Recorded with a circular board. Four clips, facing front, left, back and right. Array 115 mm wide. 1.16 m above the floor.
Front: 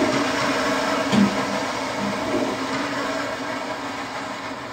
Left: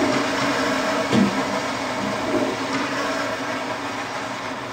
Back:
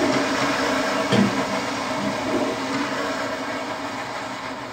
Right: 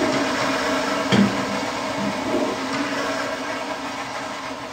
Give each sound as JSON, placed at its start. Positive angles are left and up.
{"t": 1.1, "sound": "a sliding door", "azimuth_deg": -100, "distance_m": 1.9}